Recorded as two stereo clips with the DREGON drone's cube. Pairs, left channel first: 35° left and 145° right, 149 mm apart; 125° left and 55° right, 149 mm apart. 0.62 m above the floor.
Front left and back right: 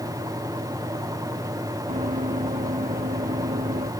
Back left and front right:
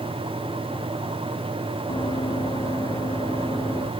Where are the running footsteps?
Straight behind; by 3.9 s 165° right.